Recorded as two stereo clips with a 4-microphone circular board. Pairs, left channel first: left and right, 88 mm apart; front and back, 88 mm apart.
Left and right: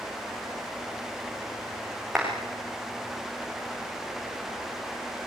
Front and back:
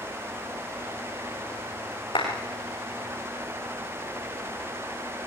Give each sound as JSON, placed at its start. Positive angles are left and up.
{"t": 2.1, "sound": "a clap", "azimuth_deg": -5, "distance_m": 8.5}